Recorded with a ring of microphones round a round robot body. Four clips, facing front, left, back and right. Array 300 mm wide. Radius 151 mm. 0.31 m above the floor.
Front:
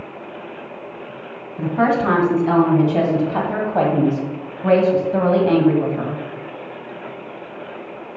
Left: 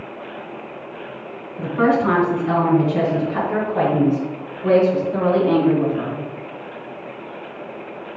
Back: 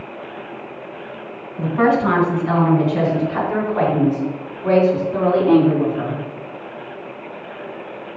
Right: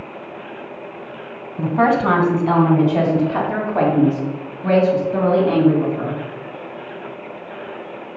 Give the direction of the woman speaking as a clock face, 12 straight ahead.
2 o'clock.